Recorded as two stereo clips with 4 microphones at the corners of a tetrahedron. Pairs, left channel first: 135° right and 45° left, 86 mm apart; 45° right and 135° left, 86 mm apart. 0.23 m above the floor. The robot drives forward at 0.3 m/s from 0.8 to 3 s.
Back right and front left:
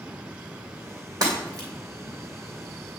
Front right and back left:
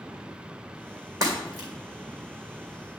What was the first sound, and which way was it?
Breaking glass, 90° left.